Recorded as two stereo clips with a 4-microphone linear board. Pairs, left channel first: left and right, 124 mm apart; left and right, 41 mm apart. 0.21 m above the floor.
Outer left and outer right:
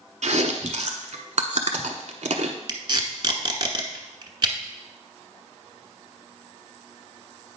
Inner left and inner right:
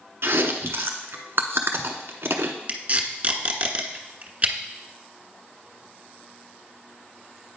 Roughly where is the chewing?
Right.